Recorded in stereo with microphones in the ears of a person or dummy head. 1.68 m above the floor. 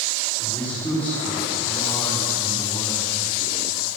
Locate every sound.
0.4 s a man speaking: 10° left (ahead or behind), 4 m